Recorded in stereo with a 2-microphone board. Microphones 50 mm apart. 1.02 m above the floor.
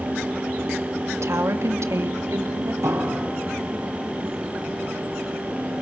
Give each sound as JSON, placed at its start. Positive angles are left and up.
{"t": 1.1, "sound": "a woman speaking", "side_deg": -65, "distance_m": 1.8}
{"t": 2.8, "sound": "a piano", "side_deg": -75, "distance_m": 5.0}